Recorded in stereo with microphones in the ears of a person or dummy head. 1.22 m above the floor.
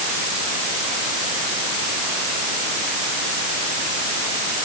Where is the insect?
I don't hear an insect.